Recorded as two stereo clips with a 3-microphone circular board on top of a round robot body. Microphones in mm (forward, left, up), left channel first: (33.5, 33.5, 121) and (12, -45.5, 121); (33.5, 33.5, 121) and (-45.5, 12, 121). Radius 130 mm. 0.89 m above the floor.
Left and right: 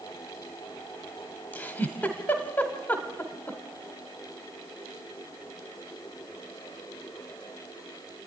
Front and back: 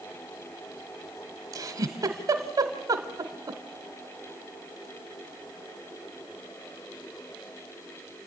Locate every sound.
1.5 s a giggle: 150° left, 1.3 m